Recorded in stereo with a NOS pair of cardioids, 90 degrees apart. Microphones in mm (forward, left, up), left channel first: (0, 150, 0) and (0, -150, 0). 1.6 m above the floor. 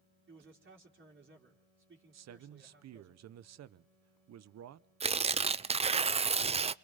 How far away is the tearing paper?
About 0.5 m.